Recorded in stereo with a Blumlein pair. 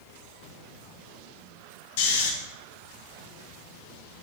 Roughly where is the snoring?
Ahead left.